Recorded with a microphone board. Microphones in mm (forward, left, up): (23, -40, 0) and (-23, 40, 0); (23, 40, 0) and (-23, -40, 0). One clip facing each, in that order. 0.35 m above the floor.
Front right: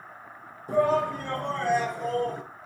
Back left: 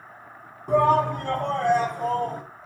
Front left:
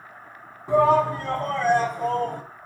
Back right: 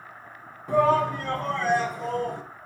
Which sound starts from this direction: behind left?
A shout, at 0.7 s.